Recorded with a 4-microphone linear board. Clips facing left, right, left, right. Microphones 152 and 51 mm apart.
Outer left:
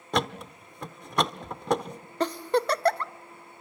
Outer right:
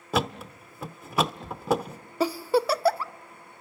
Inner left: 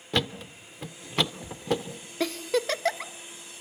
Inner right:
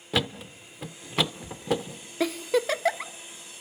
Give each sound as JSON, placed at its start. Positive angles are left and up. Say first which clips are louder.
{"t": 0.1, "sound": "a thud", "louder": "outer right 1 dB, even", "side_deg": -5, "distance_m": 0.8}
{"t": 2.2, "sound": "a giggle", "louder": "outer right 2 dB, inner right 2 dB", "side_deg": -5, "distance_m": 0.6}